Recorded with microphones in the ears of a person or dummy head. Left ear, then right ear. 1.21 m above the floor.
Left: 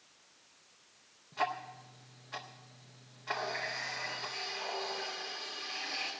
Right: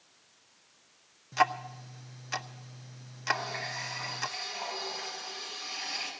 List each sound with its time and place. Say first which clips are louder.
1.3 s ticking: right 8 dB; 65° right (ahead or behind), 0.6 m
3.3 s a running tap: right 3 dB; 85° right, 6 m